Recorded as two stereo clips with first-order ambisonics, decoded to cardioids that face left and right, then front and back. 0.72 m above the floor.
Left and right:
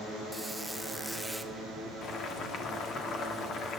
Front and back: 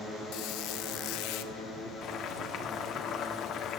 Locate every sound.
0.3 s a squeak: straight ahead, 0.6 m
2.0 s boiling: 40° left, 1.8 m